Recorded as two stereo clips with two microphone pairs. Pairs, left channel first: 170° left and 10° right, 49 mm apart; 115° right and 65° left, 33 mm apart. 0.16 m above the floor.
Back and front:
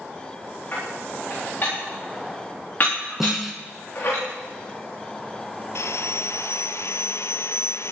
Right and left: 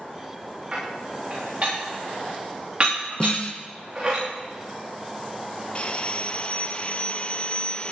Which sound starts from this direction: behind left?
Dishes clattering, at 0.7 s.